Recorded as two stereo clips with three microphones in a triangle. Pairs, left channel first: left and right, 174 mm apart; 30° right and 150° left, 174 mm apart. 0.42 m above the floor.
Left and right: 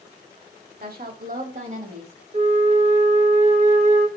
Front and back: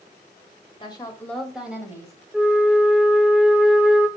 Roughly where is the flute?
Behind right.